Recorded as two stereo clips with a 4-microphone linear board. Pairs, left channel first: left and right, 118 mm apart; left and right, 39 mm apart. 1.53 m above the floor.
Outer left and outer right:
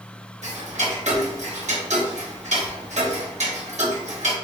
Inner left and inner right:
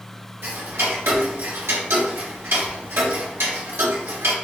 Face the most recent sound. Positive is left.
turn(degrees=-75)  # may be behind; listen again after turning